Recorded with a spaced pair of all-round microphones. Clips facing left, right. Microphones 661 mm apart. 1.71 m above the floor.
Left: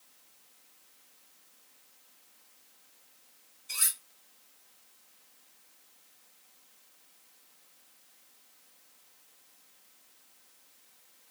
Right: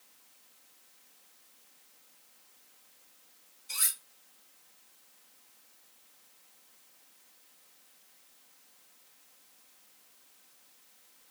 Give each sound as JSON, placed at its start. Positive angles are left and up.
{"t": 3.7, "sound": "cutlery clinking", "side_deg": 25, "distance_m": 2.0}